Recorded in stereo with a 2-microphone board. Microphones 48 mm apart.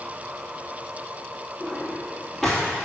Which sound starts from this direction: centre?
A drawer, at 1.6 s.